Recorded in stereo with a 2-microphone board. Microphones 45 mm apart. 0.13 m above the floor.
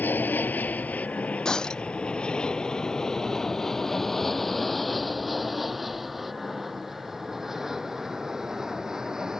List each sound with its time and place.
0.0 s an aircraft: 45° left (ahead or behind); by 9.4 s 15° right (ahead or behind)
1.4 s breaking glass: 15° left (ahead or behind)